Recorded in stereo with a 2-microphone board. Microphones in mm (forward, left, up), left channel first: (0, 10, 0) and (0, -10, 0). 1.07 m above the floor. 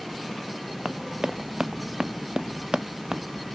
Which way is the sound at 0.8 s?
40° right (ahead or behind).